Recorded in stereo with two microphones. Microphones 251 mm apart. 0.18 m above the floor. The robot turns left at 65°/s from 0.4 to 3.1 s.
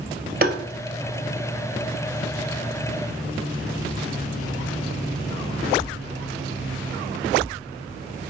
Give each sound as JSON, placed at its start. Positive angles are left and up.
{"t": 0.4, "sound": "tapping", "side_deg": -35, "distance_m": 0.6}